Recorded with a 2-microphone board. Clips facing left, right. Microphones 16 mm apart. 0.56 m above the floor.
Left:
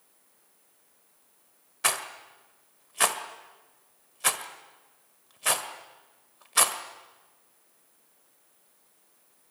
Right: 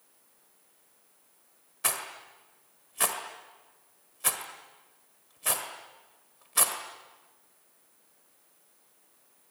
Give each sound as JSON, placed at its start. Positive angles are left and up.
{"t": 1.8, "sound": "a rattle", "side_deg": 20, "distance_m": 1.7}